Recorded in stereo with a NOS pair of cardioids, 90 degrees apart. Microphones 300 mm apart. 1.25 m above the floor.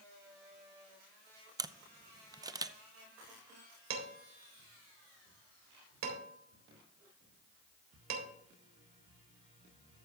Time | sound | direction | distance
1.6 | a camera shutter | 10° right | 0.6 m
3.9 | dishes clattering | 60° right | 3.5 m